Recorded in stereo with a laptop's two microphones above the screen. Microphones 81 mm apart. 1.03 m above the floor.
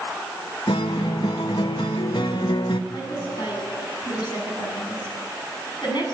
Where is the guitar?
75° left (ahead or behind), 1.0 m.